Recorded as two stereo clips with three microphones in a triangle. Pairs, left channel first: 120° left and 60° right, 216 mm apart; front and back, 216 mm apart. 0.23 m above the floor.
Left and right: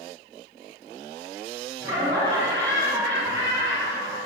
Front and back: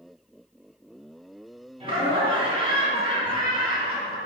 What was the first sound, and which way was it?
Laughter, 130° right.